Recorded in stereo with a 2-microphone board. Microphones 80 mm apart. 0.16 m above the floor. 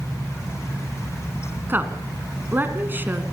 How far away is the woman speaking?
About 1.7 m.